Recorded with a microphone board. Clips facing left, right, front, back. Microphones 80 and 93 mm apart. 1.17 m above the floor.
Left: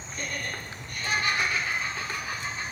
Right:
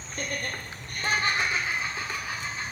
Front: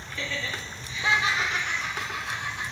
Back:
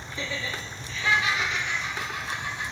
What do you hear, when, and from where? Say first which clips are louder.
0.1 s laughter: right 2 dB, even; 115° right, 0.7 m; by 2.6 s straight ahead, 0.9 m